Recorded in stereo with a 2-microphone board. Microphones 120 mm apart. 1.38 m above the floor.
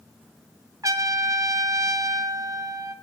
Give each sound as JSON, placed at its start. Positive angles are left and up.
{"t": 0.8, "sound": "a trumpet", "side_deg": -25, "distance_m": 0.9}